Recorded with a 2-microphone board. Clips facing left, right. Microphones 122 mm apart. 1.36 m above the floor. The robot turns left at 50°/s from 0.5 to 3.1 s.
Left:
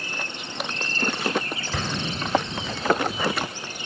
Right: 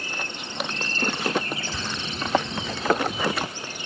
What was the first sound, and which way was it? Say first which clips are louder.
An explosion: left 3 dB; 70° left (ahead or behind).